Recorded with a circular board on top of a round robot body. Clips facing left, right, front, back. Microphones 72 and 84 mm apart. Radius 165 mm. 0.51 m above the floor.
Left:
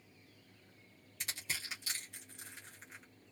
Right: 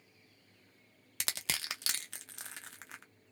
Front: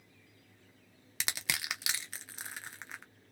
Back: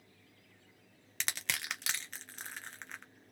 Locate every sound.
1.2 s crushing: 85° right, 0.6 m